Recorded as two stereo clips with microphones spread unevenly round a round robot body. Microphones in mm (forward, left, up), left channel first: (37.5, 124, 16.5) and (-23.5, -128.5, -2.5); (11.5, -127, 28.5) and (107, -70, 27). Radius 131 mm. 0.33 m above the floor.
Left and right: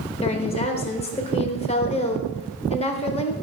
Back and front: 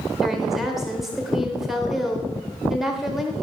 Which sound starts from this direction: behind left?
A woman speaking, at 0.2 s.